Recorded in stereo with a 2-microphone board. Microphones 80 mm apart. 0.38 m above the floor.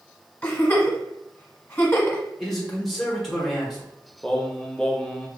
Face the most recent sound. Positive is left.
turn(degrees=10)  # may be behind; listen again after turning